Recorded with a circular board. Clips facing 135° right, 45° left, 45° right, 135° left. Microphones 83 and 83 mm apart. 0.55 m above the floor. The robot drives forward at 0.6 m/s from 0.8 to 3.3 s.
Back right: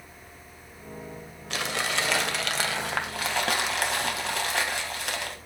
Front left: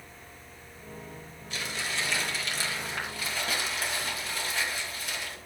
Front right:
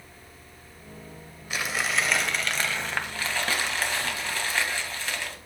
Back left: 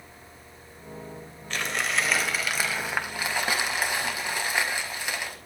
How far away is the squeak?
No squeak in this recording.